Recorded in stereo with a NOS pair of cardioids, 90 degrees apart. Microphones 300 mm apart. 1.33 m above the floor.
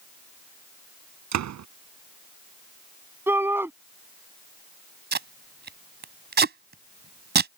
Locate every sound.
1.3 s a door slam: 65° right
3.3 s a shout: 5° right
5.1 s tape being pulled: 35° right